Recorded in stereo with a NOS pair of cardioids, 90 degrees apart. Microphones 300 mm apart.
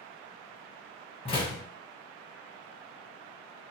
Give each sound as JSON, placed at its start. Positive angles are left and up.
{"t": 1.2, "sound": "a door slam", "azimuth_deg": 20, "distance_m": 1.5}